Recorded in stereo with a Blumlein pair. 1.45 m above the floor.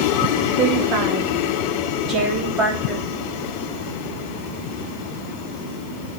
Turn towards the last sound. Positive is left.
turn(degrees=-20)